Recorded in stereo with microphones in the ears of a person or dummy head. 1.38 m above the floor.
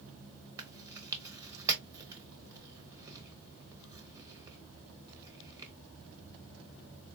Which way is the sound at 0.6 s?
15° right (ahead or behind).